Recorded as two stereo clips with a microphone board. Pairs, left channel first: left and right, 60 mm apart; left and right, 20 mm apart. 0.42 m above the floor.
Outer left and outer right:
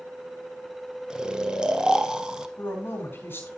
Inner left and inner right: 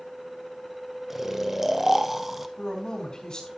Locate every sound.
1.1 s snoring: 10° right (ahead or behind), 0.7 m
2.6 s a woman speaking: 40° left (ahead or behind), 4 m